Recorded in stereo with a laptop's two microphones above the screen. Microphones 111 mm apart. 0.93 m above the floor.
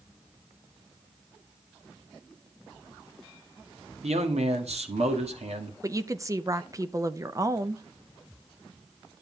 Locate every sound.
4.0 s a man speaking: 75° right (ahead or behind), 2 m
5.8 s a woman speaking: 30° right (ahead or behind), 0.6 m